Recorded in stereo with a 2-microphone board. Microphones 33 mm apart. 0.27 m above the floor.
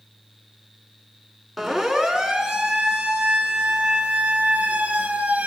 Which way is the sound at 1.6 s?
Centre (ahead or behind).